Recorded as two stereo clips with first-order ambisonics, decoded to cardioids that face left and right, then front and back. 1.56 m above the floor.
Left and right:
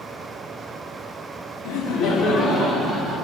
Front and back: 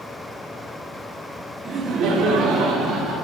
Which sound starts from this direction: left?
Laughter, at 1.6 s.